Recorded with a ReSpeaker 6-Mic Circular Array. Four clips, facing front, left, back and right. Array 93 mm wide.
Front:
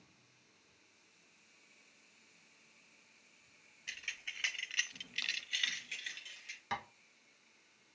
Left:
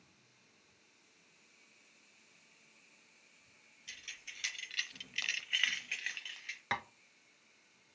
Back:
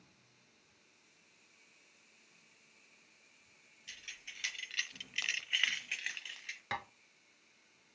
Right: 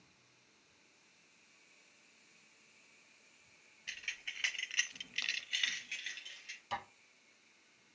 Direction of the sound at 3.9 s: 45° right.